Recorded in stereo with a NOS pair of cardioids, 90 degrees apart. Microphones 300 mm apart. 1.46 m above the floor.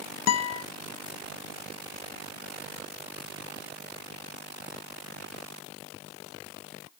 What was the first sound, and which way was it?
A guitar, 60° left.